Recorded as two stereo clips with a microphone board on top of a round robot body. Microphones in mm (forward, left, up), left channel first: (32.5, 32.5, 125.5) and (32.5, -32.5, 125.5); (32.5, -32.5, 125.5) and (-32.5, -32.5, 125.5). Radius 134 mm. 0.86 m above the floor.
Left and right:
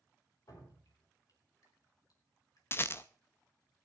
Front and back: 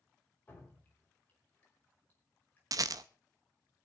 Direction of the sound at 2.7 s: 145° left.